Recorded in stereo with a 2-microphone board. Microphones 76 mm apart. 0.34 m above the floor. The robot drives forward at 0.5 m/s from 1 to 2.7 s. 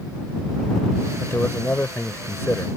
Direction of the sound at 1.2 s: 30° left (ahead or behind).